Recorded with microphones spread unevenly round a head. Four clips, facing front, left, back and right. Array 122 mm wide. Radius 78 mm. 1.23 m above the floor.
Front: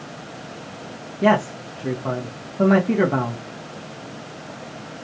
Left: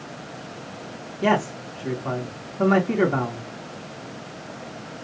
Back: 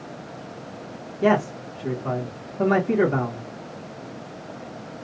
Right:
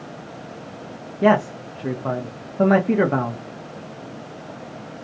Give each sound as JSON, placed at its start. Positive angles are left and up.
{"t": 1.2, "sound": "a man speaking", "azimuth_deg": -75, "distance_m": 1.1}